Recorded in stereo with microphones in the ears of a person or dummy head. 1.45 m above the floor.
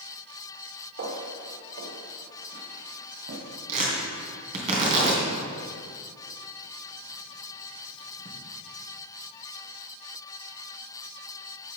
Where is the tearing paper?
35° right (ahead or behind), 3 m.